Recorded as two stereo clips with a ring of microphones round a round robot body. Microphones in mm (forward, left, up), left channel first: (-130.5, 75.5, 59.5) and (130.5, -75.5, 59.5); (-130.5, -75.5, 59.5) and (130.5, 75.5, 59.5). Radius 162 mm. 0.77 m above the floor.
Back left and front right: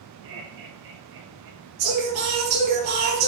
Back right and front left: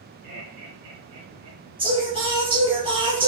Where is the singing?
45° right, 4 m.